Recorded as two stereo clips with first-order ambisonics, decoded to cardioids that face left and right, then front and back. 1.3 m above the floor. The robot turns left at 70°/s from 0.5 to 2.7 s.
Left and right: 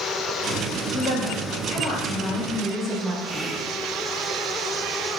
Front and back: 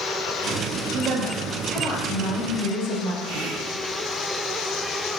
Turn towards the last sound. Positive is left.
turn(degrees=-165)